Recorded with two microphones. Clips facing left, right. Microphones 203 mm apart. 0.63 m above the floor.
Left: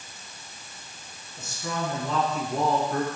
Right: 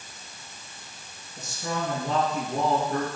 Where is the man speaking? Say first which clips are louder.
Right 1 dB; 40° right (ahead or behind), 6.5 m.